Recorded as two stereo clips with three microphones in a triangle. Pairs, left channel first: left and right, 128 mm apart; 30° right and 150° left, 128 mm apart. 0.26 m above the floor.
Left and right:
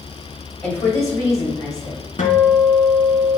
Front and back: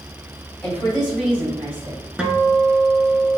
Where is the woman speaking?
45° left, 1.6 m; by 2.0 s 100° left, 1.8 m.